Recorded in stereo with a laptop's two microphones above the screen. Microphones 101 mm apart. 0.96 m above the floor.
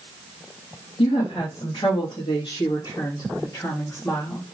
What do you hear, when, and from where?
1.0 s a woman speaking: 65° left (ahead or behind), 2.5 m; by 4.4 s 20° left (ahead or behind), 2 m